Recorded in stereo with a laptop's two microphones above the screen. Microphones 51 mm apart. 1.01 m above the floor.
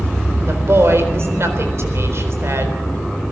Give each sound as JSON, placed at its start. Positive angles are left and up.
{"t": 0.5, "sound": "a woman speaking", "side_deg": -55, "distance_m": 4.0}